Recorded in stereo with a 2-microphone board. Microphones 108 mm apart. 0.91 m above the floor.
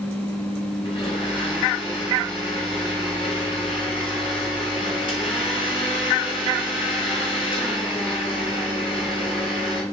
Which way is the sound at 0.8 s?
55° left (ahead or behind).